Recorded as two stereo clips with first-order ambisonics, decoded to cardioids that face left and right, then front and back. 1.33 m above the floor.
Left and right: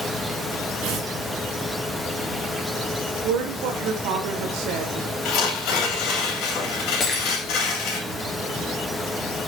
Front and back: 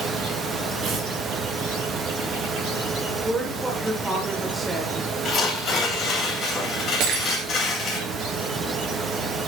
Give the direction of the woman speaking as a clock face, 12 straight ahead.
3 o'clock.